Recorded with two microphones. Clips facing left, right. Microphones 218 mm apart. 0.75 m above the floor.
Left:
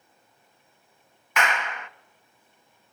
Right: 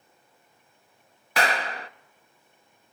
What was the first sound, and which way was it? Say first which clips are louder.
A clap: right 2 dB; 35° right (ahead or behind).